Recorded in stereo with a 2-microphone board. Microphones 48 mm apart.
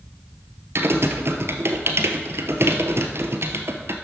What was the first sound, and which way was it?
Typing on a keyboard, 65° right (ahead or behind).